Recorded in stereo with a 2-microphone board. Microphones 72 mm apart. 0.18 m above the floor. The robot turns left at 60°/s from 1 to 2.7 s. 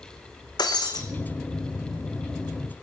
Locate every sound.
0.6 s breaking glass: 75° left (ahead or behind), 1.5 m; by 1.0 s 70° left (ahead or behind), 1.5 m